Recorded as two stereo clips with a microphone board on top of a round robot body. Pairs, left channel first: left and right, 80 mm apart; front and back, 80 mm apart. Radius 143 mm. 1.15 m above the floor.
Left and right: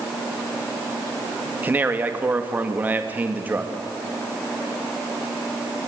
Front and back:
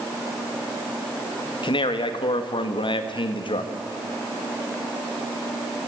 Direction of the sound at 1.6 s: 20° right.